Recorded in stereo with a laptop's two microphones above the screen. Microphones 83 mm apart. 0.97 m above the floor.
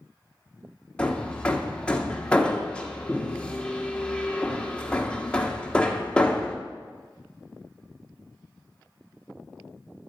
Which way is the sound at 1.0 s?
15° left (ahead or behind).